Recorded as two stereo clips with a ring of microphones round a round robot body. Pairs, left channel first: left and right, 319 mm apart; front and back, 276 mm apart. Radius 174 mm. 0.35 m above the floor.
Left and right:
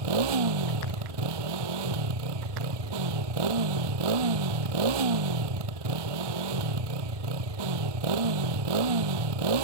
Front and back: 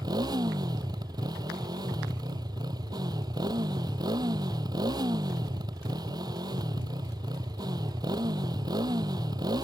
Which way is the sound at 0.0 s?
100° right.